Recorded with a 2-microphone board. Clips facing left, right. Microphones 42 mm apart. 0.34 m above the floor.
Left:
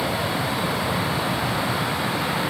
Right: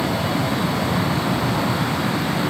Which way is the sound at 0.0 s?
30° right (ahead or behind).